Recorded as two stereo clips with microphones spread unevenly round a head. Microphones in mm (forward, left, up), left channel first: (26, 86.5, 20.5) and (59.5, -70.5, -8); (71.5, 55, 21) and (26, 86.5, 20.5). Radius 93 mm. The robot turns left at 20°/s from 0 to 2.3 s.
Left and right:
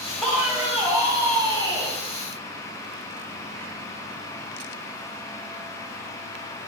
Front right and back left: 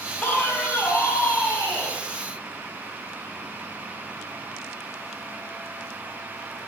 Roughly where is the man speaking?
Ahead.